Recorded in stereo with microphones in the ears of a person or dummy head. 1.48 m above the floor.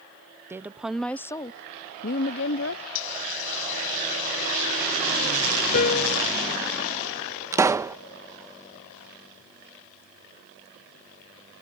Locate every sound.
0.5 s a woman speaking: 15° right (ahead or behind); by 2.8 s 70° left (ahead or behind)
3.0 s a hiss: 80° left
5.7 s a piano: 50° left (ahead or behind)
7.5 s a pop: 15° right (ahead or behind)